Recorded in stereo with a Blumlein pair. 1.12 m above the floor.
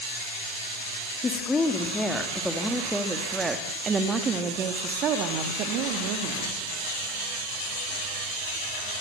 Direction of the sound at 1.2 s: 15° left.